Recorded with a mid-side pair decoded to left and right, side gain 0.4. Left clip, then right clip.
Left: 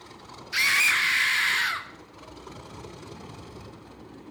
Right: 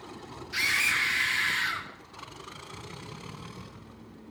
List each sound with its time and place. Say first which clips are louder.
0.5 s a scream: left 4 dB; 50° left, 1.6 m